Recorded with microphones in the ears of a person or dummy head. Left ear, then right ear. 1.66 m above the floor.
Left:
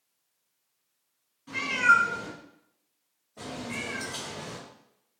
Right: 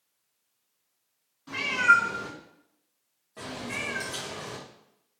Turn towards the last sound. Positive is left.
turn(degrees=-45)  # may be behind; listen again after turning